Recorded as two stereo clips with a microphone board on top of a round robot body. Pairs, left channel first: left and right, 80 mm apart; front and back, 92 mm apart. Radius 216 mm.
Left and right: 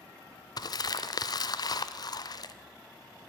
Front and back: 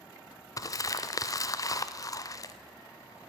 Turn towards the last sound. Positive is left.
turn(degrees=55)